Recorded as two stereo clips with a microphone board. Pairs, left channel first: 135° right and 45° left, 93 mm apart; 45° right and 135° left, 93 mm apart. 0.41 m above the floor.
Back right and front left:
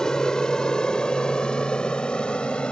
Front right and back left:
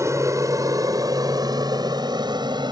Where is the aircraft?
150° left.